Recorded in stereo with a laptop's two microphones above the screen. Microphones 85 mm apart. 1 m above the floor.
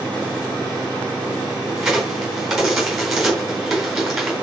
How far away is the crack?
About 4.5 m.